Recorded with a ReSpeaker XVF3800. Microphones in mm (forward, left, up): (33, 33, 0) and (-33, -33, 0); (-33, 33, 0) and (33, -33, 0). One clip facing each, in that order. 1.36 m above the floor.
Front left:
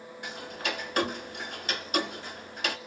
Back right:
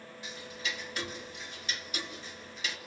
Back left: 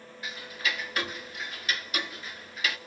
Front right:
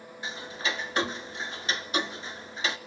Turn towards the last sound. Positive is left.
turn(degrees=15)